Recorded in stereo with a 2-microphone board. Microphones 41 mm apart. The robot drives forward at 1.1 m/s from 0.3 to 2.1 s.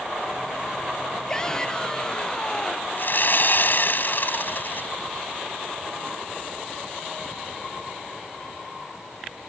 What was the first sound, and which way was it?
A shout, 15° left (ahead or behind).